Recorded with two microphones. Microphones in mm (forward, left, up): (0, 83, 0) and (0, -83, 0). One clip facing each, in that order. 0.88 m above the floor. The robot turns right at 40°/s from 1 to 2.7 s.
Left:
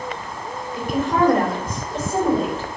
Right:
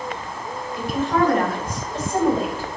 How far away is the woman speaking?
About 3.5 m.